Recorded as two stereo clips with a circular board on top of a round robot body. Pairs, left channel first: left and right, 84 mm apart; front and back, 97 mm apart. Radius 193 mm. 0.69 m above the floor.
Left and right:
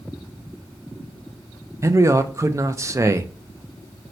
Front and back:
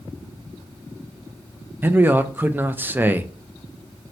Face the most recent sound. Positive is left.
turn(degrees=-120)